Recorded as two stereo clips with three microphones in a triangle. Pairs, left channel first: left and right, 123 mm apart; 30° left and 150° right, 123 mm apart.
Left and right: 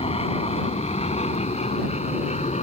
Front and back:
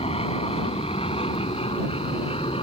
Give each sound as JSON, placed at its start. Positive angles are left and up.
{"t": 0.0, "sound": "an aircraft", "azimuth_deg": 60}